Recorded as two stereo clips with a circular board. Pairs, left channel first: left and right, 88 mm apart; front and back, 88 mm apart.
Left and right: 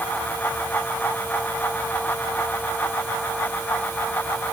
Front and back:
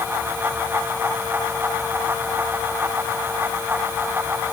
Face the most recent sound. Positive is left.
No sound to turn to.